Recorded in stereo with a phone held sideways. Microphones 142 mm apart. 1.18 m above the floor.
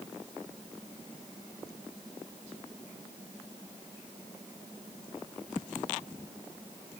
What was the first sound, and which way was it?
Only background noise.